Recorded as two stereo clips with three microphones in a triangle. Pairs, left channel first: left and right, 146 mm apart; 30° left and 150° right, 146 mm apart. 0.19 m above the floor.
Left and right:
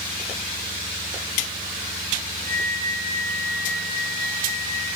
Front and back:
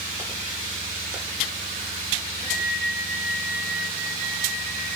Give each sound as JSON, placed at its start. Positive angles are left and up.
{"t": 2.4, "sound": "a flute", "azimuth_deg": 20, "distance_m": 3.0}